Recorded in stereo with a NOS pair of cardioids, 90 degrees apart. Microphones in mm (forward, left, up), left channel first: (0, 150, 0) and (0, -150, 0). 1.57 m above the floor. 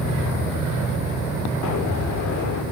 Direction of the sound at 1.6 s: 65° left.